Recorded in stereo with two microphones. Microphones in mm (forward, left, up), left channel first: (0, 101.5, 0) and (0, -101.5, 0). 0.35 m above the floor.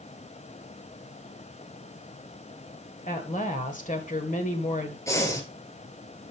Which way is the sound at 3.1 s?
40° left (ahead or behind).